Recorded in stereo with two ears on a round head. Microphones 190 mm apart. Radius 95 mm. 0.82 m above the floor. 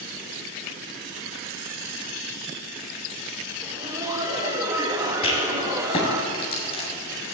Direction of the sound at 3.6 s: 15° right (ahead or behind).